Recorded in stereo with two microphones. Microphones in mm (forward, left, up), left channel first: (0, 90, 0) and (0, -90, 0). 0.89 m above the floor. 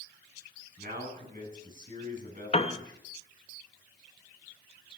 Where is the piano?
35° left (ahead or behind), 0.8 m.